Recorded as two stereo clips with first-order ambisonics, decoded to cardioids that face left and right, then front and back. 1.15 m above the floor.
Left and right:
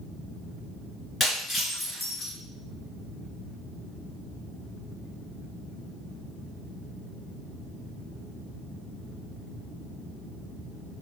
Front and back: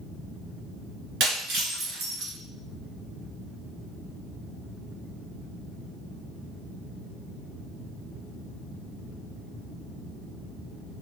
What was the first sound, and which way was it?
Breaking glass, 165° left.